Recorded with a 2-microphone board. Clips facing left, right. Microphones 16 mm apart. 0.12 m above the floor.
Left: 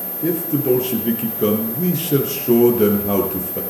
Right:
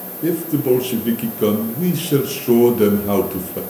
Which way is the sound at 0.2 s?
10° right (ahead or behind).